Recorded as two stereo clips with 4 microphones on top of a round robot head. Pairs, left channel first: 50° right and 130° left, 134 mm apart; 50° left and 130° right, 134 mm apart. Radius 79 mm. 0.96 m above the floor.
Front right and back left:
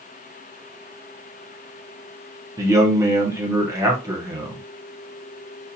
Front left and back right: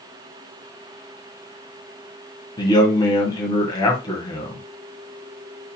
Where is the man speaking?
80° left, 1.0 m.